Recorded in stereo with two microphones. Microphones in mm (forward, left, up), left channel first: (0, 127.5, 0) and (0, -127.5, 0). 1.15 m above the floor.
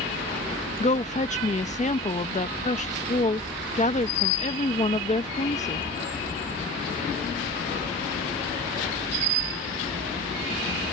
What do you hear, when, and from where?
0.8 s a woman speaking: 25° left (ahead or behind)